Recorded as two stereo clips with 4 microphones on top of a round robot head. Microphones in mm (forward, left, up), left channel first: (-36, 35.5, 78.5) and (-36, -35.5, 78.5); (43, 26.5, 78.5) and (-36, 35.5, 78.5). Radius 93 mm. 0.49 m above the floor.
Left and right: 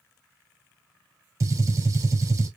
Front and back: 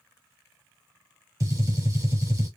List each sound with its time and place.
1.4 s a gunshot: 135° right, 1.8 m